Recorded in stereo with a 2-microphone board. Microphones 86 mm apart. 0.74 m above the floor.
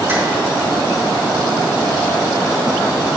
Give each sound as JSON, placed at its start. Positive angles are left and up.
{"t": 0.1, "sound": "tapping", "side_deg": -25, "distance_m": 1.3}